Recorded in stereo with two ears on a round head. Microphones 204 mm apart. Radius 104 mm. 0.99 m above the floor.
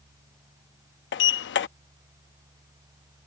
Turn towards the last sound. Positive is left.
turn(degrees=55)  # may be behind; listen again after turning